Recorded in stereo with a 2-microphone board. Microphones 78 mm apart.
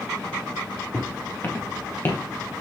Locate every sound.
0.9 s footsteps: 30° left (ahead or behind), 2.5 m; by 2.2 s 25° left (ahead or behind), 1.7 m